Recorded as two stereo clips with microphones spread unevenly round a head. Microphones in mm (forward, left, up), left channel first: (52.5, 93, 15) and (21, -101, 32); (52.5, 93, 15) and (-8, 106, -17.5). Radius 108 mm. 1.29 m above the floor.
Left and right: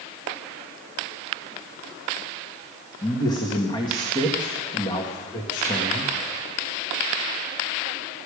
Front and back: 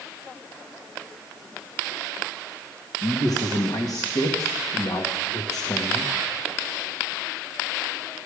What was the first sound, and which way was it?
A man speaking, 10° left.